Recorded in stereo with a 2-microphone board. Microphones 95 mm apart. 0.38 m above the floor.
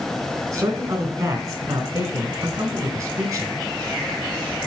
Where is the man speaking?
30° right (ahead or behind), 1.8 m.